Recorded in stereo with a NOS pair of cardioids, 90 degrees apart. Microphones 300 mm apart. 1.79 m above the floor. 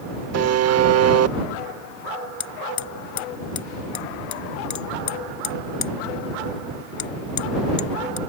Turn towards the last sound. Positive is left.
turn(degrees=65)